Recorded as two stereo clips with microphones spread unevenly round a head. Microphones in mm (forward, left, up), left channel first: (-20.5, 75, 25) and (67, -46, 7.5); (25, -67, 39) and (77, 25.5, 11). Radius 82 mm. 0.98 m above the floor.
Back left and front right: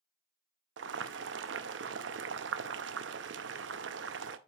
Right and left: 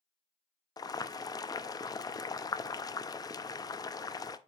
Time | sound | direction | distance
0.8 | boiling | 65° right | 0.6 m